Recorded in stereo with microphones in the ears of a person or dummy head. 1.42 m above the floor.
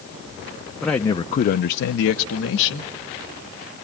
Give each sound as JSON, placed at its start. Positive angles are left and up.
{"t": 0.8, "sound": "a man speaking", "side_deg": 5, "distance_m": 0.8}